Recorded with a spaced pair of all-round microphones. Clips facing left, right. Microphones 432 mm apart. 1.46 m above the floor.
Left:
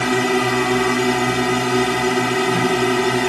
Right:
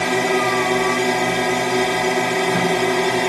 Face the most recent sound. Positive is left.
turn(degrees=25)  # may be behind; listen again after turning